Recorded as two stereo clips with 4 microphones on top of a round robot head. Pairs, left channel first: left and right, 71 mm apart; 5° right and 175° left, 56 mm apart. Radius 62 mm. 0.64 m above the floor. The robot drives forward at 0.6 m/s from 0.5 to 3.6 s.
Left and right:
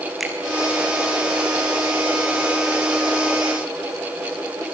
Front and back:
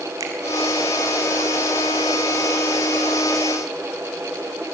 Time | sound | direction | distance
0.2 | a finger snap | straight behind | 4.5 m